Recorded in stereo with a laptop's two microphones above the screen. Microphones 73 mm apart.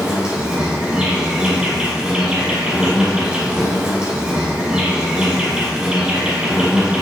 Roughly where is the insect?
Centre.